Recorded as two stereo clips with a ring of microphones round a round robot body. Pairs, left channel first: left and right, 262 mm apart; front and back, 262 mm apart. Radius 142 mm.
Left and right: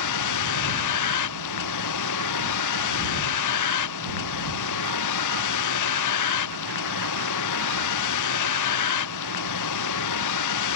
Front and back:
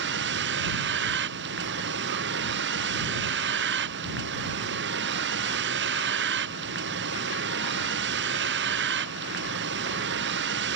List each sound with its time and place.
0.0 s a vehicle: 125° left